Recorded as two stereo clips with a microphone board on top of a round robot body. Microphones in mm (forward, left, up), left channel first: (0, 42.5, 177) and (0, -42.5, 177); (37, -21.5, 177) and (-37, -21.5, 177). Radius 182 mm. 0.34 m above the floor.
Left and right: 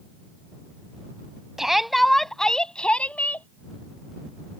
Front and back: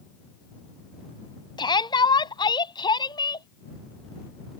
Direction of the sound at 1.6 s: 5° right.